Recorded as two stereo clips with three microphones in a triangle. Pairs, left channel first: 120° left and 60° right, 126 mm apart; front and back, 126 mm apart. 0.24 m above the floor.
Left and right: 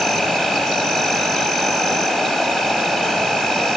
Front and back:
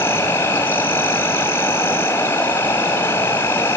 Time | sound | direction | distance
0.0 | an insect | 45° left | 2.5 m